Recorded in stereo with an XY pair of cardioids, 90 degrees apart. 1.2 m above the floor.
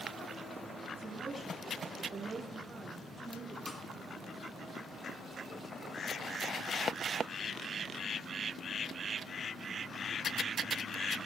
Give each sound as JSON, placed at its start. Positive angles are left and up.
{"t": 1.0, "sound": "a woman speaking", "azimuth_deg": -20, "distance_m": 7.0}
{"t": 3.7, "sound": "a snare drum", "azimuth_deg": 35, "distance_m": 2.0}